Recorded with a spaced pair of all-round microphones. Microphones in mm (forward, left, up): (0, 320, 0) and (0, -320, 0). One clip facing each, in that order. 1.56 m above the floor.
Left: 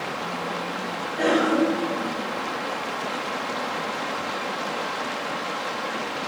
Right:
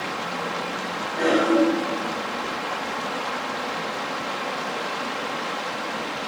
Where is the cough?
40° left (ahead or behind), 3 m.